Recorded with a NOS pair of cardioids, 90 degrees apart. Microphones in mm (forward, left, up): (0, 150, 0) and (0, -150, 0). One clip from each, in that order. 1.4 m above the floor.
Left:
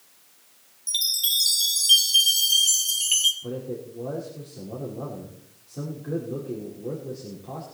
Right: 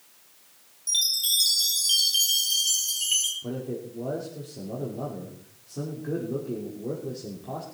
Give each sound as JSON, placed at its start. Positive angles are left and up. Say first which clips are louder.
{"t": 0.9, "sound": "a chime", "louder": "even", "azimuth_deg": 20, "distance_m": 3.0}
{"t": 3.4, "sound": "a man speaking", "louder": "left 1 dB", "azimuth_deg": -15, "distance_m": 5.0}